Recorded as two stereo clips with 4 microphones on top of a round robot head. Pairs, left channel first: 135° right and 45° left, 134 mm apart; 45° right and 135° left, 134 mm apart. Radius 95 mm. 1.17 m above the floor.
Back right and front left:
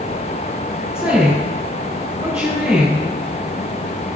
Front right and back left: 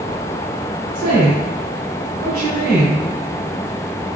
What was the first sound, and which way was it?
A woman speaking, 120° left.